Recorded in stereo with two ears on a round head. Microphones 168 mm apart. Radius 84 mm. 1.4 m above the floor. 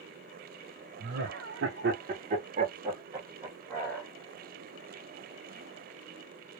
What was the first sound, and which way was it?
Laughter, 75° right (ahead or behind).